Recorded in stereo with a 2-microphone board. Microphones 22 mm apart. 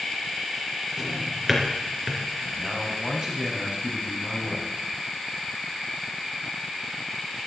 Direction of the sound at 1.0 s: 15° right (ahead or behind).